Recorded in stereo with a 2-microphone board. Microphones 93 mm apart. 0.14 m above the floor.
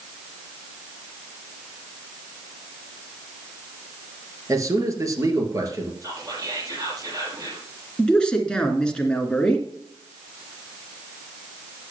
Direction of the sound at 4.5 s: 35° right (ahead or behind).